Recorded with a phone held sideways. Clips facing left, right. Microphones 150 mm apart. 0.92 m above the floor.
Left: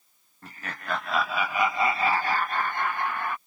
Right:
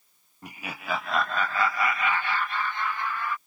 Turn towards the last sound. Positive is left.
turn(degrees=55)  # may be behind; listen again after turning